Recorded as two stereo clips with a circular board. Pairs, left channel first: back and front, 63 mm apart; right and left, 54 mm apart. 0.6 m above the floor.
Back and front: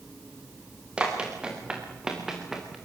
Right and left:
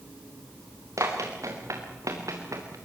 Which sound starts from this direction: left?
Running footsteps, at 1.0 s.